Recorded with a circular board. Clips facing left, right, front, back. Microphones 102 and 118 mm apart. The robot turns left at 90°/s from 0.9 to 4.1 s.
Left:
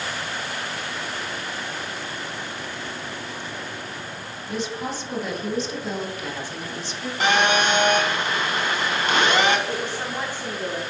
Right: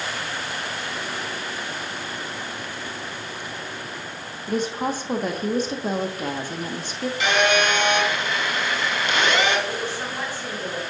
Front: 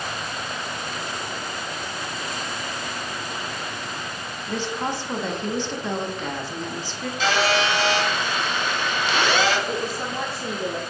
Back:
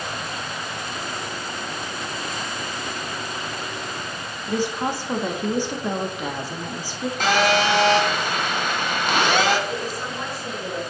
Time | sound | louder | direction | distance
4.5 | a woman speaking | right 5 dB, back 3 dB | 105° right | 1.3 m
7.2 | a phone buzzing | left 1 dB, back 2 dB | 140° left | 2 m
9.7 | a woman speaking | left 1 dB, front 1 dB | 15° left | 1.7 m